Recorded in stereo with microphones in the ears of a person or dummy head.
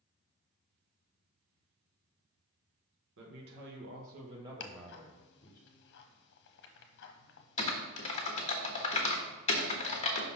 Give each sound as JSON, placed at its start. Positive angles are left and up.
{"t": 3.2, "sound": "a man speaking", "side_deg": -70, "distance_m": 1.4}
{"t": 4.6, "sound": "ticking", "side_deg": 60, "distance_m": 0.8}
{"t": 7.6, "sound": "typing on a keyboard", "side_deg": 35, "distance_m": 1.0}